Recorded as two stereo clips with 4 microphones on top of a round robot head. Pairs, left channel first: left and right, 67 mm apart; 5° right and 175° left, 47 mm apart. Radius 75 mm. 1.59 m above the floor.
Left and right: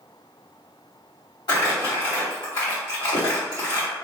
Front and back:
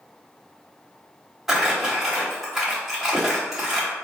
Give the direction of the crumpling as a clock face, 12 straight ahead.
9 o'clock.